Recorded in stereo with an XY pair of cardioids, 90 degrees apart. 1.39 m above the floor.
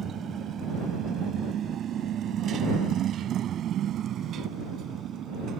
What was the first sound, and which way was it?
A motorcycle, 65° right.